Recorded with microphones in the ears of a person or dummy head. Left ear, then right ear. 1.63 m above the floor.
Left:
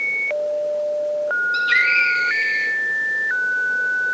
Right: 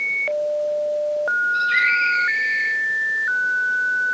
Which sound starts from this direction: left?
A scream, at 1.5 s.